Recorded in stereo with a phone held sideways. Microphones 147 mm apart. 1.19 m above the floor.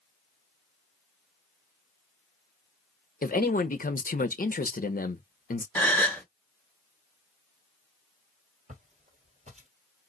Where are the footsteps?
50° right (ahead or behind), 1.9 m.